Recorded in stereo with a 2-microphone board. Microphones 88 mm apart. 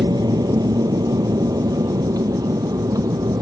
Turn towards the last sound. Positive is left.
turn(degrees=-40)  # may be behind; listen again after turning